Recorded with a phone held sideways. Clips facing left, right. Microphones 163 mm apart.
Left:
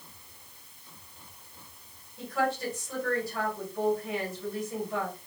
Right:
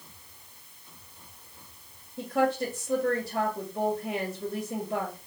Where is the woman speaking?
45° right (ahead or behind), 1.1 m.